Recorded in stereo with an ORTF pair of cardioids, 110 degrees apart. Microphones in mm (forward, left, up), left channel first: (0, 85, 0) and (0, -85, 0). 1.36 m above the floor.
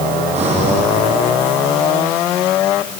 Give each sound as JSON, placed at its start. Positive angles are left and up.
{"t": 0.3, "sound": "breathing", "azimuth_deg": -40, "distance_m": 7.5}